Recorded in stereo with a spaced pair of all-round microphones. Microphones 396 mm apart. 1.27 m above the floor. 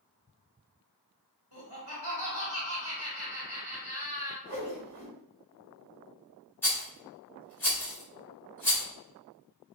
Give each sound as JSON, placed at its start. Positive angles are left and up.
{"t": 1.5, "sound": "laughter", "side_deg": -70, "distance_m": 1.4}
{"t": 4.5, "sound": "a whoosh", "side_deg": -75, "distance_m": 1.6}
{"t": 6.6, "sound": "a rattle", "side_deg": 5, "distance_m": 1.3}